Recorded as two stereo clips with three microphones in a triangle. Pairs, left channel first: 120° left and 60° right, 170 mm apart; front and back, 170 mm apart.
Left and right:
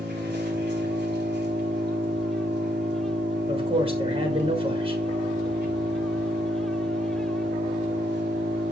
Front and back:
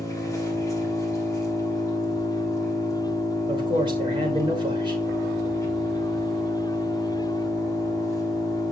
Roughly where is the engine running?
Right.